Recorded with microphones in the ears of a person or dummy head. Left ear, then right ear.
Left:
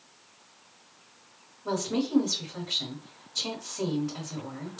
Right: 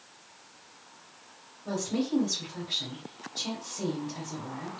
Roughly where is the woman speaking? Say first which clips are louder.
Left 2 dB; left.